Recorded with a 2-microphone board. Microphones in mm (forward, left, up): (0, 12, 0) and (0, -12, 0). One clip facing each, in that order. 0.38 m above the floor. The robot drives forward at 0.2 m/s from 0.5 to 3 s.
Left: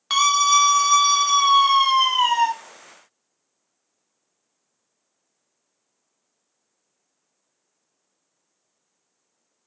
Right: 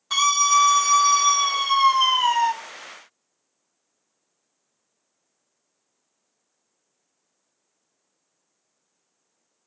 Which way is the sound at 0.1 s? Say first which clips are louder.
Left 2 dB; 55° left (ahead or behind).